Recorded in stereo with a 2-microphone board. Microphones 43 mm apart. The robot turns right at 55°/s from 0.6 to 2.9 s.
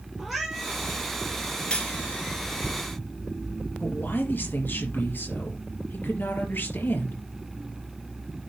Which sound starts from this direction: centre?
A cat meowing, at 0.2 s.